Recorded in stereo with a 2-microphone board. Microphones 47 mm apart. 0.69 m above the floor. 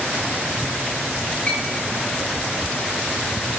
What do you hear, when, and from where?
1.5 s a clink: 30° left (ahead or behind), 1.3 m